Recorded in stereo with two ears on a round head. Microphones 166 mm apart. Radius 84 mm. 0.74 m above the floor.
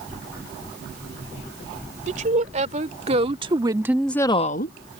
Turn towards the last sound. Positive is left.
turn(degrees=55)  # may be behind; listen again after turning